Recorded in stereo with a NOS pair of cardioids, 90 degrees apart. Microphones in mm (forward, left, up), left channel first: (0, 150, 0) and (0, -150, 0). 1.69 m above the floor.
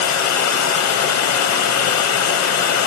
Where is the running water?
65° left, 1.0 m.